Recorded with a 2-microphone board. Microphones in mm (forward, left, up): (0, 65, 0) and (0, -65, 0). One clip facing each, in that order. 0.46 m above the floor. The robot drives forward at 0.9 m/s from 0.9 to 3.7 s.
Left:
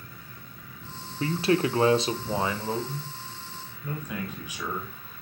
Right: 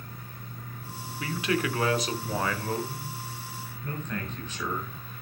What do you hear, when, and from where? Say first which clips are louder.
1.2 s a man speaking: left 5 dB; 35° left (ahead or behind), 0.8 m; by 5.0 s 10° left (ahead or behind), 2.5 m